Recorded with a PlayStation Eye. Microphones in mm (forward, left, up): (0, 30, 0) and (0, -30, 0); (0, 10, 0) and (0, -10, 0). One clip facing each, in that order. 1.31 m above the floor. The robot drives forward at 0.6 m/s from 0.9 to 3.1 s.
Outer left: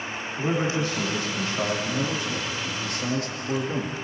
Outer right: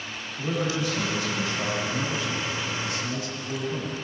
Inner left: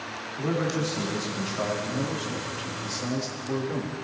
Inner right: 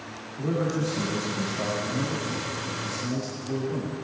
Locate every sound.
0.4 s a man speaking: 40° left (ahead or behind), 3 m; by 3.9 s 65° left (ahead or behind), 2 m